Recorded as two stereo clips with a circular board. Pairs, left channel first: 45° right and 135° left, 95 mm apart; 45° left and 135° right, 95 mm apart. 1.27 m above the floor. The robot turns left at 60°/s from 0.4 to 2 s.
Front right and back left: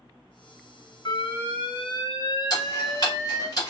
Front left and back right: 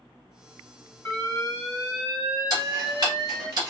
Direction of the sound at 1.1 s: 15° right.